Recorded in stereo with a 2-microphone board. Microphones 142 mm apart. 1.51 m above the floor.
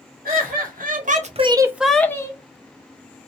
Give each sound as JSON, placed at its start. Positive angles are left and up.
{"t": 0.2, "sound": "laughter", "side_deg": -85, "distance_m": 1.2}